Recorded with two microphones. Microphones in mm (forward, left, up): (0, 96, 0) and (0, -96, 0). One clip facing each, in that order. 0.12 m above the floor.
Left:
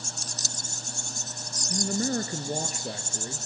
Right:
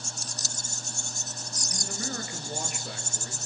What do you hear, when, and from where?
1.7 s a man speaking: 40° left (ahead or behind), 1.9 m; by 3.5 s 25° left (ahead or behind), 2 m